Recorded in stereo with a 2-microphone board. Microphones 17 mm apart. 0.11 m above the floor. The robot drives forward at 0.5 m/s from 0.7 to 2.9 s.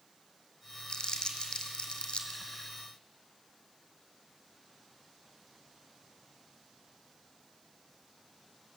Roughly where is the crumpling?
Left.